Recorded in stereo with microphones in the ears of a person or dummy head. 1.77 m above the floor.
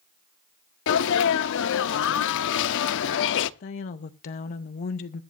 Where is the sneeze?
70° left (ahead or behind), 0.8 m.